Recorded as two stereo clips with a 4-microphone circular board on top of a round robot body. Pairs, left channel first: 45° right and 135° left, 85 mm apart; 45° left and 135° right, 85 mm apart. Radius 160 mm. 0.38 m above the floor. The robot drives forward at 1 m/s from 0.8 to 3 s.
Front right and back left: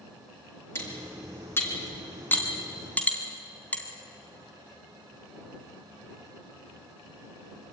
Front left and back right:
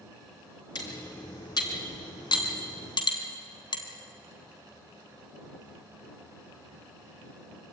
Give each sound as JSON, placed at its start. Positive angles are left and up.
{"t": 0.8, "sound": "cutlery clinking", "azimuth_deg": 15, "distance_m": 5.0}